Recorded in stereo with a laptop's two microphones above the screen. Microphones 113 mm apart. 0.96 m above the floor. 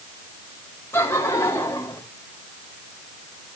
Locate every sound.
0.9 s laughter: 20° left (ahead or behind), 2.5 m